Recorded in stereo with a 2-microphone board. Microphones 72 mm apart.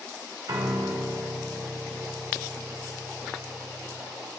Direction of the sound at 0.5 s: 70° right (ahead or behind).